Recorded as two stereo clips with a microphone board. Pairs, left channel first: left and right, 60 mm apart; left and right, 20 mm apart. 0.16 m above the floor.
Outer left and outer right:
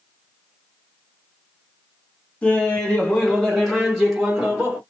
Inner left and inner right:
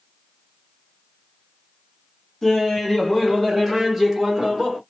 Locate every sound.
2.4 s laughter: 20° left (ahead or behind), 1.2 m; by 4.8 s 15° right (ahead or behind), 1.7 m